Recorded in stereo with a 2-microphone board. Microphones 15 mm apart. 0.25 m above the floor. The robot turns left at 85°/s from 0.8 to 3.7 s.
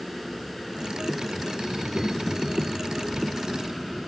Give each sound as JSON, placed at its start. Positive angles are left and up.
{"t": 1.7, "sound": "a child speaking", "azimuth_deg": 5}